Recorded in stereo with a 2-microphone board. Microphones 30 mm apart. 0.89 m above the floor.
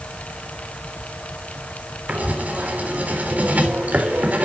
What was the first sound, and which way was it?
Writing, 60° right (ahead or behind).